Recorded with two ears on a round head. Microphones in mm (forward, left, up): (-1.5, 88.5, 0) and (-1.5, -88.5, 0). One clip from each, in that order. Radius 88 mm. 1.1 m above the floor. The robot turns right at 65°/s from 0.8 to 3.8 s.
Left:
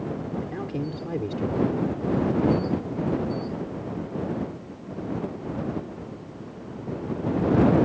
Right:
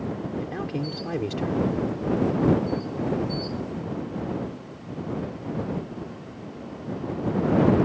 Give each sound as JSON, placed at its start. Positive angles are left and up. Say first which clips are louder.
{"t": 0.4, "sound": "a man speaking", "louder": "right 1 dB", "azimuth_deg": -155}